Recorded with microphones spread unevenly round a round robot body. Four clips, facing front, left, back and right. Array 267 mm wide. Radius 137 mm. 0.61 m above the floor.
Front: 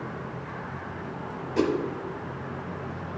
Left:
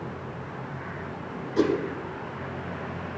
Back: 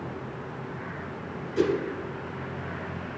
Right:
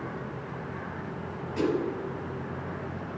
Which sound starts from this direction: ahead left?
A whoosh, at 1.6 s.